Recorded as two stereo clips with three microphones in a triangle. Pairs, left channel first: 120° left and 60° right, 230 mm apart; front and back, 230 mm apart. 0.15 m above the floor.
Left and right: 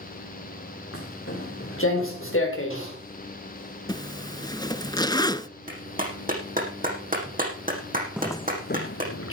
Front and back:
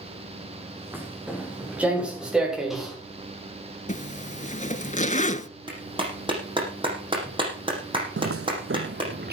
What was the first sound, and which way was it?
Footsteps, 100° left.